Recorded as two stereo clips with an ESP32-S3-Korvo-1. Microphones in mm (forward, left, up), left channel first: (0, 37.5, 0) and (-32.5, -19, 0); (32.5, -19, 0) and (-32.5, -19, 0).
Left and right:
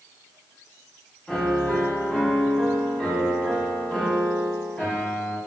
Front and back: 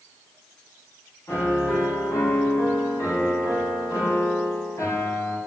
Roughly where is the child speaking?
I don't hear a child speaking.